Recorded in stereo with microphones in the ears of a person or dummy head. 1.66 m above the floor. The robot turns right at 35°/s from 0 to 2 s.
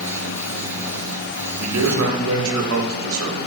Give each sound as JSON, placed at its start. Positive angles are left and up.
{"t": 1.6, "sound": "a man speaking", "side_deg": -85, "distance_m": 1.3}